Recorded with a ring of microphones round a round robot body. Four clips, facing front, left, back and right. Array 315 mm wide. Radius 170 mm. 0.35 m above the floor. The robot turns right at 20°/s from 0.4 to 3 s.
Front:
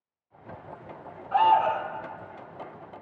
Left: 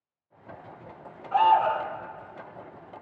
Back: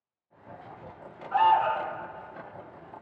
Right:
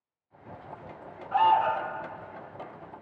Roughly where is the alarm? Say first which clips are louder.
Left 2 dB, front 1 dB; ahead left.